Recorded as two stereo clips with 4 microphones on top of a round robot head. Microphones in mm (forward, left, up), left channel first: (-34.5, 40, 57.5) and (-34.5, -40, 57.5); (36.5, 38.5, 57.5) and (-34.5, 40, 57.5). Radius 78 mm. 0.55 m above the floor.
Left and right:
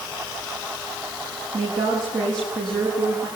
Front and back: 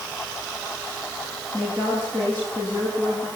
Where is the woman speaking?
70° right, 6.5 m; by 3.3 s 65° right, 8.5 m.